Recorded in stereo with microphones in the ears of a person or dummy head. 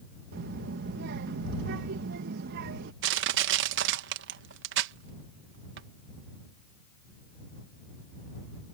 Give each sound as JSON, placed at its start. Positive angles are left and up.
{"t": 0.3, "sound": "a child speaking", "side_deg": -50}
{"t": 3.0, "sound": "crushing", "side_deg": -75}